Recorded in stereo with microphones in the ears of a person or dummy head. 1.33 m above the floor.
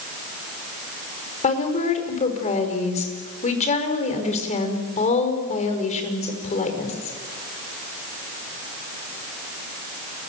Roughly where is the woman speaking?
Left.